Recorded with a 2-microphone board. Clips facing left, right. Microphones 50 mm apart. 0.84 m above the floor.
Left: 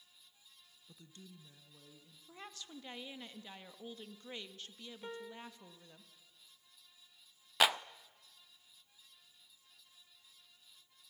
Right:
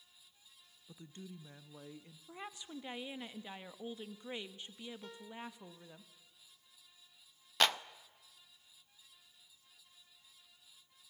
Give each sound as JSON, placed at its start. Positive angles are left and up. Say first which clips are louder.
{"t": 0.9, "sound": "a woman speaking", "louder": "right 6 dB", "side_deg": -20, "distance_m": 0.8}
{"t": 2.3, "sound": "a woman speaking", "louder": "right 4 dB", "side_deg": -20, "distance_m": 1.2}
{"t": 5.0, "sound": "a piano", "louder": "left 1 dB", "side_deg": 30, "distance_m": 2.5}
{"t": 7.6, "sound": "a clap", "louder": "left 1 dB", "side_deg": 5, "distance_m": 0.5}